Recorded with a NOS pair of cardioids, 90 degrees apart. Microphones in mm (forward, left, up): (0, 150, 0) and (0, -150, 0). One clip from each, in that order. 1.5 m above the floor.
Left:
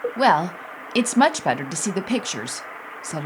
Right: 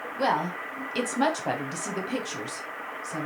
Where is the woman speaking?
45° left, 0.5 m.